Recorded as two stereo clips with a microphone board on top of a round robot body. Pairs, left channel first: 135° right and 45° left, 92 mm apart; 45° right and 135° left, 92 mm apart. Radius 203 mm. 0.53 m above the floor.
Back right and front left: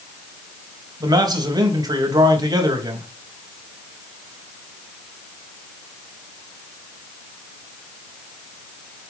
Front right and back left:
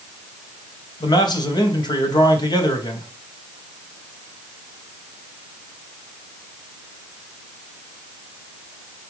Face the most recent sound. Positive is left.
turn(degrees=-5)